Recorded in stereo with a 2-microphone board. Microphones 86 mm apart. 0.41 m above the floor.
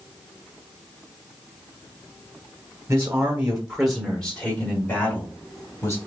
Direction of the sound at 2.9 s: 30° right (ahead or behind).